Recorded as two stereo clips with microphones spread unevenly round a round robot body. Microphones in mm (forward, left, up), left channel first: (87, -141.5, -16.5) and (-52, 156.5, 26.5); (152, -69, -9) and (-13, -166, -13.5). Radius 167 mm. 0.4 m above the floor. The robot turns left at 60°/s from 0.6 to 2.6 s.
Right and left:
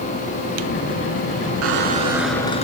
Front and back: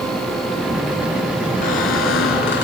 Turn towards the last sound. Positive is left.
turn(degrees=10)